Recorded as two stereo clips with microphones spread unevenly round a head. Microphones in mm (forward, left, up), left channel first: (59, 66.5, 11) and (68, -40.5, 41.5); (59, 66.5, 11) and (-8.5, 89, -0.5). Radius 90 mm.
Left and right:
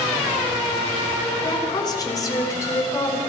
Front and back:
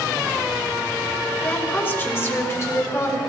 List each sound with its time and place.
1.4 s a woman speaking: 45° left, 6 m; by 3.2 s 25° left, 7 m